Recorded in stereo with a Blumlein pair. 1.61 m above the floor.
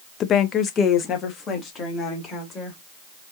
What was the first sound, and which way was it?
A woman speaking, 30° left.